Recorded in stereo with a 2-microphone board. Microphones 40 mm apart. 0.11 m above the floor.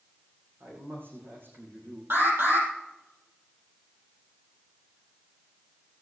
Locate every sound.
0.6 s a man speaking: 55° right (ahead or behind), 6.5 m
2.1 s an alarm: 60° right (ahead or behind), 5 m